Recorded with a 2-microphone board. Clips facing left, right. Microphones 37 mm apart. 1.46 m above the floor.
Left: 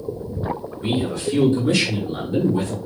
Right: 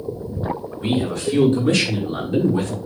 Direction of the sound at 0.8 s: 60° right (ahead or behind).